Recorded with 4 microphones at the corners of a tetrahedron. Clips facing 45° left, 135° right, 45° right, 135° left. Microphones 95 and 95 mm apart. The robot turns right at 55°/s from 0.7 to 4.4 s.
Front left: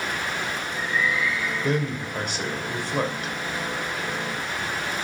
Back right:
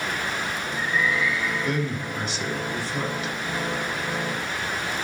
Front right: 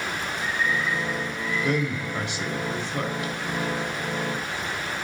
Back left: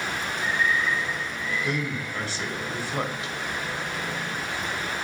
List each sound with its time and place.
1.6 s a man speaking: 15° right, 2.5 m; by 3.3 s 80° left, 2.5 m